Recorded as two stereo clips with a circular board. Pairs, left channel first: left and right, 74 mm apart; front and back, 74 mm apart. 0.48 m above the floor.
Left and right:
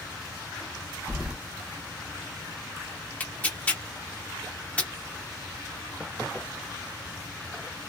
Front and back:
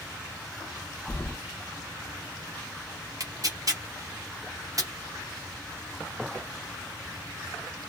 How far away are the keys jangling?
About 0.6 m.